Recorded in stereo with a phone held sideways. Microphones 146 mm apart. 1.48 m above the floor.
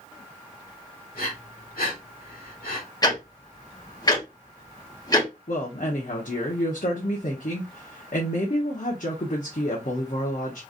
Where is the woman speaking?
60° left (ahead or behind), 1.0 m.